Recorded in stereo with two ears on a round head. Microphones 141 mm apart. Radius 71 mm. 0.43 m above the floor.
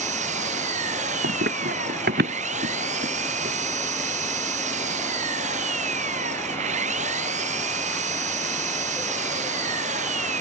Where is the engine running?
50° right (ahead or behind).